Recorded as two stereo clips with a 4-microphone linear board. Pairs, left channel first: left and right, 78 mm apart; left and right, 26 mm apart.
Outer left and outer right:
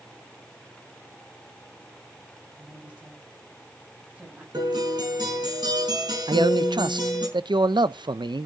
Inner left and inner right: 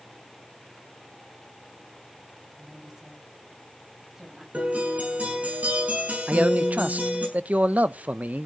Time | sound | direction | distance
2.6 | a woman speaking | 20° right (ahead or behind) | 5.5 m
4.5 | a guitar | 70° right (ahead or behind) | 6 m
6.3 | a man speaking | 80° right | 0.7 m